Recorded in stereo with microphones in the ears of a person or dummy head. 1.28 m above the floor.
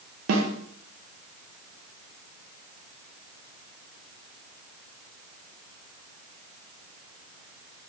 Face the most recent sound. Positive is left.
turn(degrees=-85)